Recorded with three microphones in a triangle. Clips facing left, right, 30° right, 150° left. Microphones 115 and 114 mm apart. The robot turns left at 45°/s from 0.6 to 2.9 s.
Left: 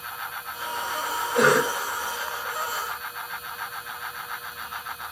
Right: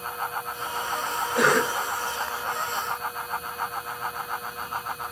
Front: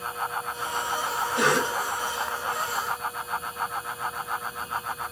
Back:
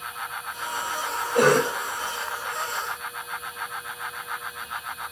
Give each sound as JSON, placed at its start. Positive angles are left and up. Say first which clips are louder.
{"t": 1.4, "sound": "a cough", "louder": "left 2 dB, back 6 dB", "azimuth_deg": 175, "distance_m": 2.0}